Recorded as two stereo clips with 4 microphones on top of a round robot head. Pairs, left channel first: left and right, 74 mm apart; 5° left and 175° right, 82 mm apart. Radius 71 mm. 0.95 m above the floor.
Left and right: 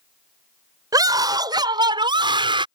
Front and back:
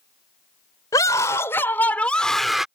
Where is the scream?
55° right; by 2.7 s 90° right.